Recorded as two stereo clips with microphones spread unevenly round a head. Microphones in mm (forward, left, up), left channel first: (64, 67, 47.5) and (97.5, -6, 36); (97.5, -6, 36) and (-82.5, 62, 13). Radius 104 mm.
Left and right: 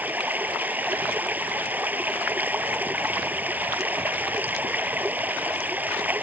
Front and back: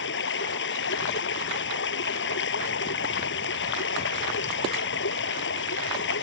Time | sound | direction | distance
0.0 | running water | 5° left | ?